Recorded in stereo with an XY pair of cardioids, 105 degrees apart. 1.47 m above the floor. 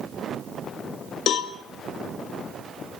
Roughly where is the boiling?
No boiling in this recording.